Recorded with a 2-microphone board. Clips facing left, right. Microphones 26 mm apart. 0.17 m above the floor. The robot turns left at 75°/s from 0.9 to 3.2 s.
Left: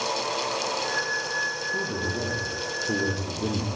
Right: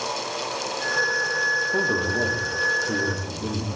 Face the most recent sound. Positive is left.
turn(degrees=135)